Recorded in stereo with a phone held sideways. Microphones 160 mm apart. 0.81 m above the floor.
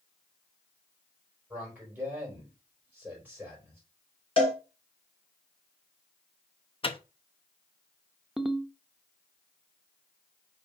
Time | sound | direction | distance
1.5 | a man speaking | 10° right (ahead or behind) | 4 m
4.4 | a cowbell | 35° left (ahead or behind) | 3 m
6.8 | a microwave | 35° left (ahead or behind) | 0.7 m
8.4 | a ringtone | centre (ahead or behind) | 0.7 m